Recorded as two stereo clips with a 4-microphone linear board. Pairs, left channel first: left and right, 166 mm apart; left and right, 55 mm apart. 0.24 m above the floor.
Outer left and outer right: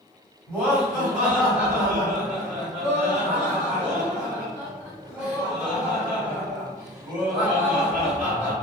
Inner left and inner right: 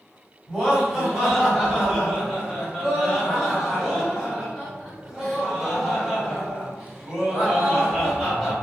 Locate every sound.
0.5 s laughter: 10° right (ahead or behind), 1.4 m